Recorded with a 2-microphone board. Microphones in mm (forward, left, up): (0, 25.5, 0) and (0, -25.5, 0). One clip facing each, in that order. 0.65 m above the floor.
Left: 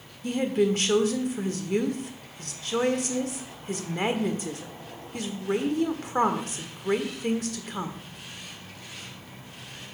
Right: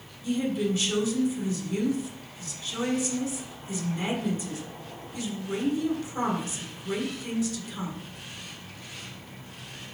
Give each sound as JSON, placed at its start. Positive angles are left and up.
{"t": 0.2, "sound": "a woman speaking", "side_deg": 50, "distance_m": 1.4}